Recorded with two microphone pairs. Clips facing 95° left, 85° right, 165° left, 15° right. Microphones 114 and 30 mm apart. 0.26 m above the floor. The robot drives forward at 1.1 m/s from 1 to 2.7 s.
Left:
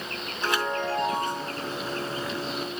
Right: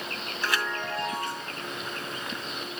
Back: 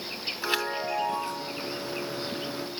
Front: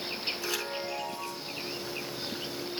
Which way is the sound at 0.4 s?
145° left.